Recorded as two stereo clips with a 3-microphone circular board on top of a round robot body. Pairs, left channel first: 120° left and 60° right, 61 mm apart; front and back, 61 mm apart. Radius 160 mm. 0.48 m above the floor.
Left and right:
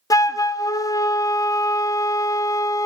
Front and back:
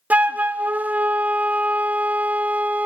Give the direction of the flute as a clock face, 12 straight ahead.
8 o'clock.